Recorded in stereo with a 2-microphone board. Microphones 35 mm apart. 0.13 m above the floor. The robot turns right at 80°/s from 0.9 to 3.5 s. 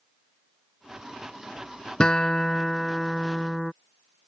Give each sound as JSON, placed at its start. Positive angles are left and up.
{"t": 2.0, "sound": "a guitar", "side_deg": 25}